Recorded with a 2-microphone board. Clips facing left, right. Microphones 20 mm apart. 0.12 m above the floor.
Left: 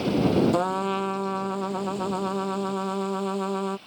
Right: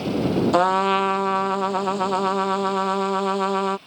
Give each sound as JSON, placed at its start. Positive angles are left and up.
{"t": 0.5, "sound": "a trumpet", "side_deg": -35}